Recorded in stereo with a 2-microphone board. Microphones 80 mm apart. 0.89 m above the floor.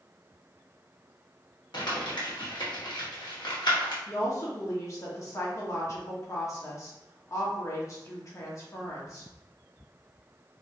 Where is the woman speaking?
40° left (ahead or behind), 1.3 m.